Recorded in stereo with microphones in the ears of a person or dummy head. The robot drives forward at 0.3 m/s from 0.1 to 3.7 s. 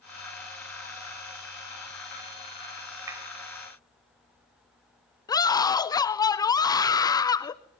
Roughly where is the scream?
Centre.